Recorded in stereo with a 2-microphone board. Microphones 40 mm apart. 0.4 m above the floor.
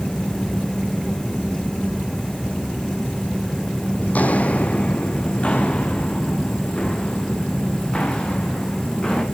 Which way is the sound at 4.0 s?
45° left (ahead or behind).